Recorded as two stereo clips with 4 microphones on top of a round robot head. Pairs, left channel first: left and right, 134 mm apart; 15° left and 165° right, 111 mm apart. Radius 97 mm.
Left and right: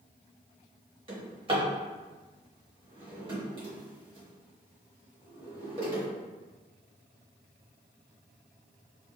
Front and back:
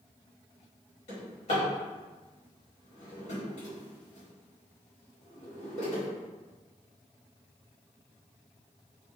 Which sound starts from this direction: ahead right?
A drawer, at 1.1 s.